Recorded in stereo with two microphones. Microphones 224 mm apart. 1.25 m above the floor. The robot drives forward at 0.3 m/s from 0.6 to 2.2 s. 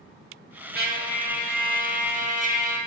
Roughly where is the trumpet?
Right.